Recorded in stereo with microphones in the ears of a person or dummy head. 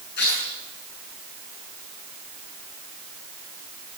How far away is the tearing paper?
About 7 m.